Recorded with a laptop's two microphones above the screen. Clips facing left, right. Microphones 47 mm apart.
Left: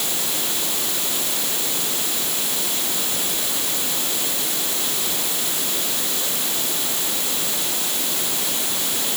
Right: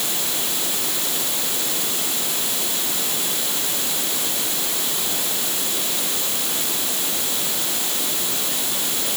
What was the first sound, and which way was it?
Only background noise.